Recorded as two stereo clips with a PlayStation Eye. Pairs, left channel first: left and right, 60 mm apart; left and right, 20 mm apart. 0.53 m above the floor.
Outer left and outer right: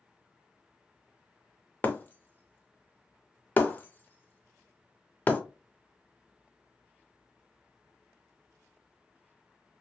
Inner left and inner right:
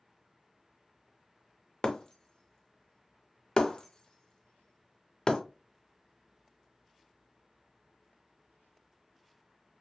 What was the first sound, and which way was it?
Breaking glass, 30° left (ahead or behind).